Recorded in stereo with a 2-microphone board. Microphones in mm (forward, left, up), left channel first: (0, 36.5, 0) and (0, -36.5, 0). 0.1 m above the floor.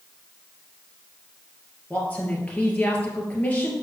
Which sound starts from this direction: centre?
A woman speaking, at 1.9 s.